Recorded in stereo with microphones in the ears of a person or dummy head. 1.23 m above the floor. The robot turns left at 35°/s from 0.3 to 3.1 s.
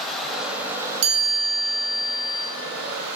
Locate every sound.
0.0 s running water: straight ahead, 1.8 m; by 3.2 s 95° right, 1.8 m
1.0 s a chime: 90° right, 3.5 m; by 2.4 s 135° right, 3.5 m